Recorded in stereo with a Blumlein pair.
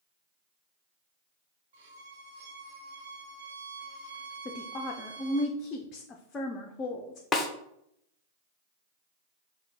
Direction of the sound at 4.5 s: 25° left.